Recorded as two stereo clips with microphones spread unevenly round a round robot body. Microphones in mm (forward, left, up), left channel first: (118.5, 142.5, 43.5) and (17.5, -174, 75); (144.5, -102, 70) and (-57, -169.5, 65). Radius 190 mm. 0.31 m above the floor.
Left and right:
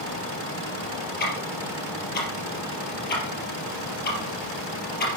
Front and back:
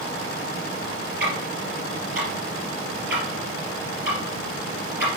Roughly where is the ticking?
Behind left.